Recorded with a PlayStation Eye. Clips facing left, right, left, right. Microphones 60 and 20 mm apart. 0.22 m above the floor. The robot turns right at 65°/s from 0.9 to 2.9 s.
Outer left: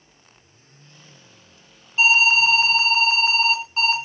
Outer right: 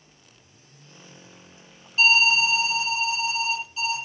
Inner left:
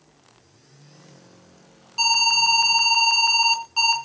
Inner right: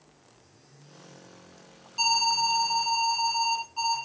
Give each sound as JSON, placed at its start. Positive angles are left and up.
{"t": 2.0, "sound": "an alarm", "azimuth_deg": 30, "distance_m": 3.0}